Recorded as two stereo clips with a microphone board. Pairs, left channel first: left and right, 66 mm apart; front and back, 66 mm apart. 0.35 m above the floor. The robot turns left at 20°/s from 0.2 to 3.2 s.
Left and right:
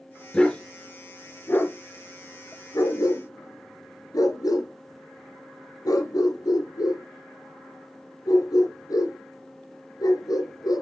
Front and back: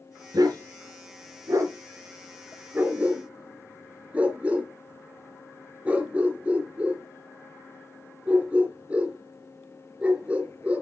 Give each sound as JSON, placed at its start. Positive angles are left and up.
{"t": 0.3, "sound": "a dog barking", "azimuth_deg": 165, "distance_m": 2.0}